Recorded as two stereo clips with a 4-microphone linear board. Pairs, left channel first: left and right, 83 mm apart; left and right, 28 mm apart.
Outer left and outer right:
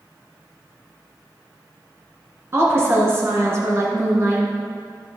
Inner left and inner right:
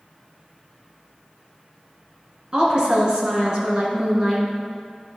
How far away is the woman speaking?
About 2 m.